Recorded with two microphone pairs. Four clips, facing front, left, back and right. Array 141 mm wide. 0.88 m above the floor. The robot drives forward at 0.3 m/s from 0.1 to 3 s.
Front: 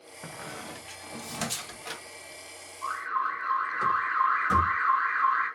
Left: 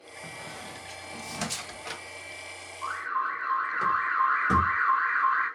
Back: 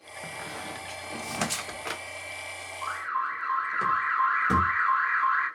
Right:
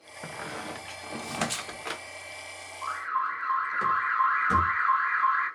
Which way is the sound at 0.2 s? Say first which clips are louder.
Right 6 dB, back 2 dB; 85° right.